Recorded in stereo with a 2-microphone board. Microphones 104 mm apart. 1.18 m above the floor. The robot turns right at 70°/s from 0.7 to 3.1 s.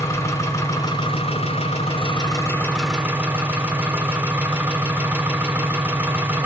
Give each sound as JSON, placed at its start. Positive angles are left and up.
{"t": 0.0, "sound": "an engine running", "azimuth_deg": 30, "distance_m": 3.5}